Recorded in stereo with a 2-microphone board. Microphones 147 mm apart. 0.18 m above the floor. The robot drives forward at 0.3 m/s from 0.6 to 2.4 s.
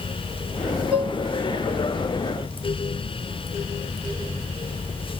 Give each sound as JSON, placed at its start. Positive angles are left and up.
{"t": 0.9, "sound": "dishes clattering", "side_deg": -5, "distance_m": 1.5}